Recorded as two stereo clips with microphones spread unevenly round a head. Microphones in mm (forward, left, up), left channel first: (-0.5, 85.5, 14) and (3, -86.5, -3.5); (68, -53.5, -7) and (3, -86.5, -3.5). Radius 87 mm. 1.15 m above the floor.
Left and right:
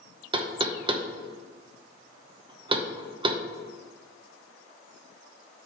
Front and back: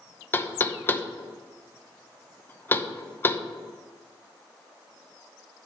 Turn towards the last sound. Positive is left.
turn(degrees=-30)